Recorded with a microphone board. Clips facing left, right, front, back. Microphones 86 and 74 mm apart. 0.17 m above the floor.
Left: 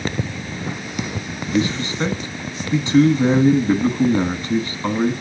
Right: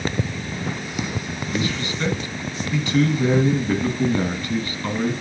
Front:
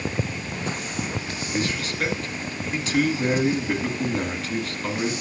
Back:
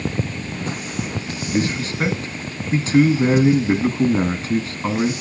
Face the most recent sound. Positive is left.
turn(degrees=140)